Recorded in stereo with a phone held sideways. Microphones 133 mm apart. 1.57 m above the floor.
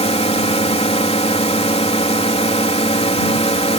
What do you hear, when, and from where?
0.0 s a drone: 50° left (ahead or behind)